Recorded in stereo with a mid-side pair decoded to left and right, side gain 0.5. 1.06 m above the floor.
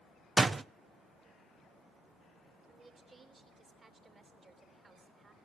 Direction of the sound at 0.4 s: 25° right.